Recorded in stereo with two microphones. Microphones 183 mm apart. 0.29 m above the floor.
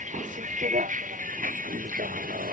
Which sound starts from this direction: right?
A vehicle, at 0.0 s.